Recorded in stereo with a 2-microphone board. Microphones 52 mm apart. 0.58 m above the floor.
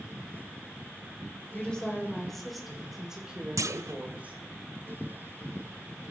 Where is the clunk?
75° right (ahead or behind), 0.6 m.